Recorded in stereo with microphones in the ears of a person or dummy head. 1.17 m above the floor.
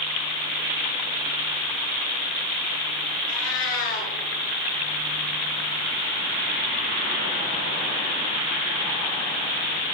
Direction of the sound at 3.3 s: 70° left (ahead or behind).